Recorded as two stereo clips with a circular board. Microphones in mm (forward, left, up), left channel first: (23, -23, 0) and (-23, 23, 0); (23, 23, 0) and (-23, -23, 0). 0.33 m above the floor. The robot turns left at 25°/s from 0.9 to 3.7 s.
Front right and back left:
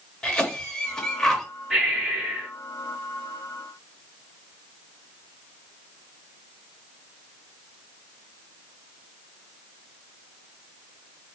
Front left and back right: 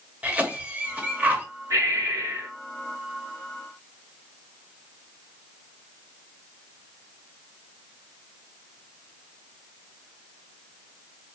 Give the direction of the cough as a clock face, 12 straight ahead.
4 o'clock.